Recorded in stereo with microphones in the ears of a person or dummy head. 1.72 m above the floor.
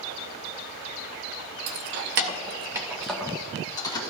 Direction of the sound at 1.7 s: 65° right (ahead or behind).